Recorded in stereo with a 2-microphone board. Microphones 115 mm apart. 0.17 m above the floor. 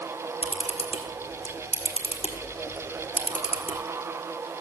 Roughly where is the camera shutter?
Left.